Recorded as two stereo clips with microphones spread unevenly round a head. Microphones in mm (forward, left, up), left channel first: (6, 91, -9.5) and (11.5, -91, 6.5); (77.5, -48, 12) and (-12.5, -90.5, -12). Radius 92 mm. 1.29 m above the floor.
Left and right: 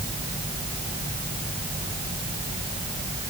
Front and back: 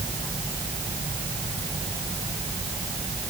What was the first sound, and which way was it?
Only background noise.